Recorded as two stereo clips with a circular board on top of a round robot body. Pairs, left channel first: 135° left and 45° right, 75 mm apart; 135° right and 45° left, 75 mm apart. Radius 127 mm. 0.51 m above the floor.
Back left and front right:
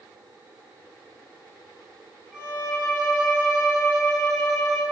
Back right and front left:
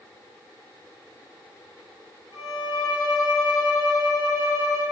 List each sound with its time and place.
2.3 s a violin: 130° right, 0.7 m